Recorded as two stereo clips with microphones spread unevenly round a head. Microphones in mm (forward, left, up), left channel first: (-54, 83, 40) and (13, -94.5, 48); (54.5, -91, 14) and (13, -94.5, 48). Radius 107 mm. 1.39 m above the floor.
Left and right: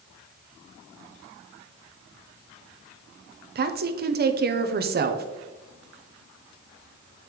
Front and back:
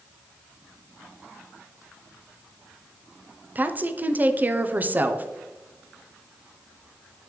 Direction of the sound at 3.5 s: 100° right.